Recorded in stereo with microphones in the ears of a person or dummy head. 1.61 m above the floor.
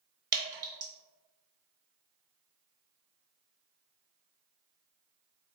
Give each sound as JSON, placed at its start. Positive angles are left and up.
{"t": 0.3, "sound": "dripping", "side_deg": -25, "distance_m": 1.2}